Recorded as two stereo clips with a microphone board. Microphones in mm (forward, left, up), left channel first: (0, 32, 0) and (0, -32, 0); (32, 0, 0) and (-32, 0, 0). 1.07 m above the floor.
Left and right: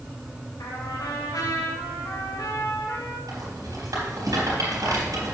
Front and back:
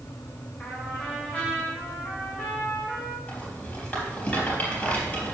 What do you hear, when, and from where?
0.6 s a trumpet: 70° left, 3 m
3.3 s a rattle: 65° right, 3.5 m